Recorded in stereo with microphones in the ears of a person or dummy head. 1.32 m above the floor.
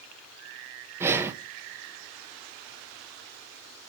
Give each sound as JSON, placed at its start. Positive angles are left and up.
{"t": 1.0, "sound": "breathing", "side_deg": -15, "distance_m": 0.5}